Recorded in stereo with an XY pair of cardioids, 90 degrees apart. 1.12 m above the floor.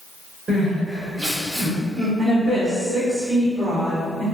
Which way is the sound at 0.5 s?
40° right.